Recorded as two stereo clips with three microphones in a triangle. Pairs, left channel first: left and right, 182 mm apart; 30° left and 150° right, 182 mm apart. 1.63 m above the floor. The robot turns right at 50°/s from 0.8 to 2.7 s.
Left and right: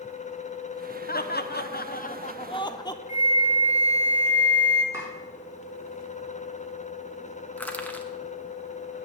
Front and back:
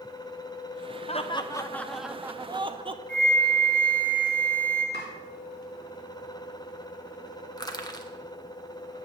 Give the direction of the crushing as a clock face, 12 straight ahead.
11 o'clock.